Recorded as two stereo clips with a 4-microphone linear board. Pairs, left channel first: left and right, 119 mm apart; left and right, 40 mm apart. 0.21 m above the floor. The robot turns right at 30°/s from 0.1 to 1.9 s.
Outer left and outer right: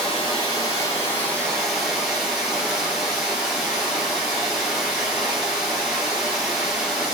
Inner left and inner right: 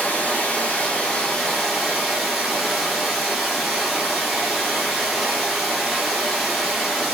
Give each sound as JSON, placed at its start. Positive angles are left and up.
{"t": 0.0, "sound": "running water", "azimuth_deg": 130, "distance_m": 1.4}